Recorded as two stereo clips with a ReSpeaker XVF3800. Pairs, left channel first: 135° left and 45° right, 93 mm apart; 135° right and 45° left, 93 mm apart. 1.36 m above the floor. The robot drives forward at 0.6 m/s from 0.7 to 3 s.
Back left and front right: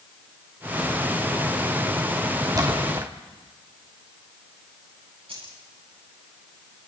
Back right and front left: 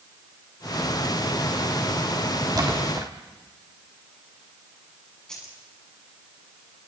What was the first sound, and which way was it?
A splash, straight ahead.